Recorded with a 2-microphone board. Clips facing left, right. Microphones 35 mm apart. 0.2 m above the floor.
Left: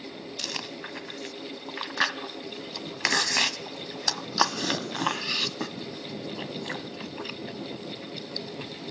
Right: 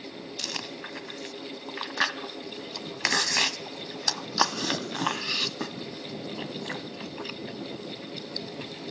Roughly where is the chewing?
Centre.